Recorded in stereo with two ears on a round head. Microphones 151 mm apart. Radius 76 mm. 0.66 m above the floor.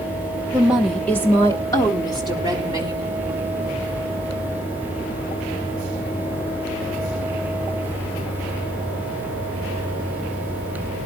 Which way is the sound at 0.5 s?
10° right (ahead or behind).